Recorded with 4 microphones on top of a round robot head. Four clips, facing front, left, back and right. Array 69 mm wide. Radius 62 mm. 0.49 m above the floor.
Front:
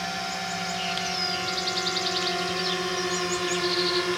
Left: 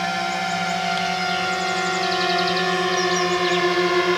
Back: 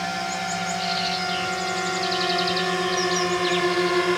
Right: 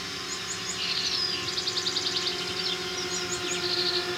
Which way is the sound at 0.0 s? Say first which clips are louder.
Left 14 dB, back 4 dB; 105° left.